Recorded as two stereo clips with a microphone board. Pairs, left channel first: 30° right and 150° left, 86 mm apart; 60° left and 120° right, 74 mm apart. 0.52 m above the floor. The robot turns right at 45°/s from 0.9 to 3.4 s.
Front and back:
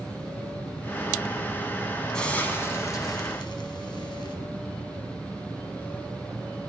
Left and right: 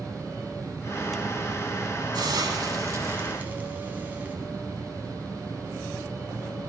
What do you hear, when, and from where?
2.1 s a hiss: 110° right, 1.4 m; by 4.4 s 55° right, 1.4 m